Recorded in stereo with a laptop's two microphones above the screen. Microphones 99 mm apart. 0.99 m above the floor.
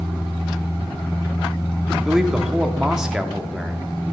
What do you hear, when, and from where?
2.0 s a man speaking: 5° right (ahead or behind), 1.8 m